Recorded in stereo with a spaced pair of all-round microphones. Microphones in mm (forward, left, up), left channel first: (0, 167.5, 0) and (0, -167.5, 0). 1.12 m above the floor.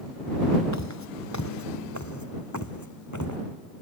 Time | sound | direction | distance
0.7 | footsteps | 50° left (ahead or behind) | ?